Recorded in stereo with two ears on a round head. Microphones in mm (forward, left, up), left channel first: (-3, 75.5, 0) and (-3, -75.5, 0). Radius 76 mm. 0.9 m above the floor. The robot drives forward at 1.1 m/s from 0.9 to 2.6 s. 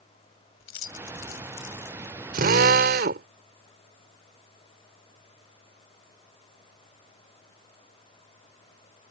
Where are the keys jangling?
85° left; by 2.2 s 75° left (ahead or behind).